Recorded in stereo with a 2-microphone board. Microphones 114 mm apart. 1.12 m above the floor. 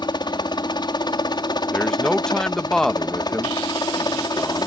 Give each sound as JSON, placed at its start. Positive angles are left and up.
{"t": 0.0, "sound": "a helicopter", "side_deg": 40}
{"t": 1.7, "sound": "a man speaking", "side_deg": 5}